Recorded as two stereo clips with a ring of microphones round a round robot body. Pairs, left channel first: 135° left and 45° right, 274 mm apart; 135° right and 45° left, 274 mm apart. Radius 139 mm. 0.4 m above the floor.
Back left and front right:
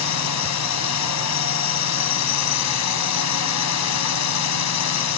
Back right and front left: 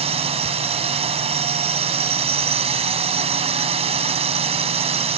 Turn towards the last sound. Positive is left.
turn(degrees=115)